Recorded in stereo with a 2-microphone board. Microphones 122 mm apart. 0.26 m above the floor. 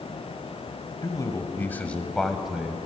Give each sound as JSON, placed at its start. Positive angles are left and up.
{"t": 1.0, "sound": "a man speaking", "side_deg": 30, "distance_m": 1.2}